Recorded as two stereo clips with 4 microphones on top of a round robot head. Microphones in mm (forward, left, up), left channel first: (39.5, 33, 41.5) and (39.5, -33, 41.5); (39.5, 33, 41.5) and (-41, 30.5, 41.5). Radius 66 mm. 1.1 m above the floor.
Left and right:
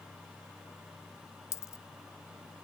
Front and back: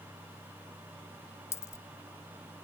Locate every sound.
1.5 s a dropped coin: 55° left